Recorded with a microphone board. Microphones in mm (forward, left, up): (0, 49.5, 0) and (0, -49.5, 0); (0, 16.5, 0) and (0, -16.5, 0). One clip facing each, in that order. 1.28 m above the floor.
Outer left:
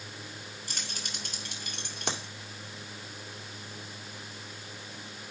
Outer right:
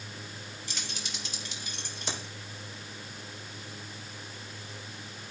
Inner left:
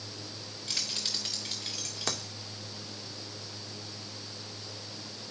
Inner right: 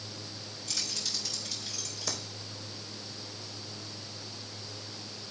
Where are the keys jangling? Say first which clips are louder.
Outer right 1 dB, inner left 2 dB; 50° left (ahead or behind), 3.5 m; by 2.3 s 70° left (ahead or behind), 2 m.